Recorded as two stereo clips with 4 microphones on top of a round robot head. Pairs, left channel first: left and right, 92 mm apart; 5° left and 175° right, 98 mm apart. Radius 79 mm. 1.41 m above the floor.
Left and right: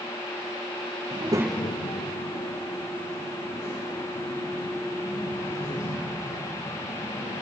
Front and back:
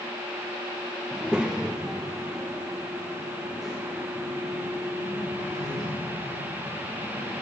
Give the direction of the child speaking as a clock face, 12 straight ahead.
3 o'clock.